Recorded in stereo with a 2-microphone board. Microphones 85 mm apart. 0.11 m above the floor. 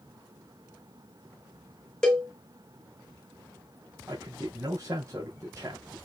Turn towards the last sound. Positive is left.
turn(degrees=-35)  # may be behind; listen again after turning